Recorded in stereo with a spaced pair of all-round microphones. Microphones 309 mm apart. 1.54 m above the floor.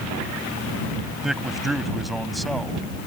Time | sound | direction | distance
1.2 | a man speaking | centre (ahead or behind) | ?